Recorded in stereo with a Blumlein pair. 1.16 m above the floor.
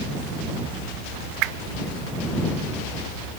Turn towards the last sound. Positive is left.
turn(degrees=-40)